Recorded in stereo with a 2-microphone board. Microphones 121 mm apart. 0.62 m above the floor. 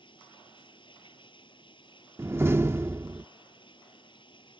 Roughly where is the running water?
Left.